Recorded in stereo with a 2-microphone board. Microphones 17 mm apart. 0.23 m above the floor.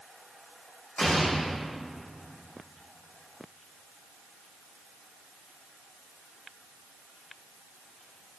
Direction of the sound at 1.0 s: 40° left (ahead or behind).